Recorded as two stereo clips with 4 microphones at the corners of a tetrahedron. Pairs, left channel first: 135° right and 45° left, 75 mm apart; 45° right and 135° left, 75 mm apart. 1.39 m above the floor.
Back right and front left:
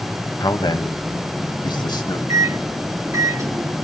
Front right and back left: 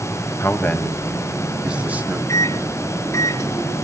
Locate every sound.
0.4 s a man speaking: 100° right, 2 m; by 2.2 s 160° right, 3 m
2.3 s a microwave: straight ahead, 2.0 m